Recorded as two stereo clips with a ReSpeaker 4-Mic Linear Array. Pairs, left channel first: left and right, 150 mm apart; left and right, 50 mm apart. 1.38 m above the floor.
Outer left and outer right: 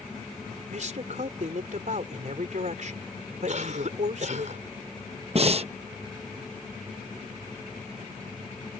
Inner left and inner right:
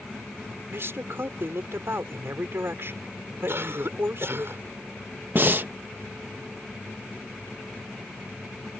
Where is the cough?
55° right (ahead or behind).